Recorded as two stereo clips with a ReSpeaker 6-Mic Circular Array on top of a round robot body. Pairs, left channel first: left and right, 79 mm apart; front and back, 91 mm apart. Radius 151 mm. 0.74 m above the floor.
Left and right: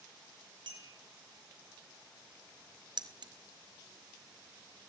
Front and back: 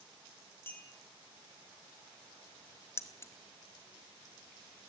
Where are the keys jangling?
65° right, 1.4 m.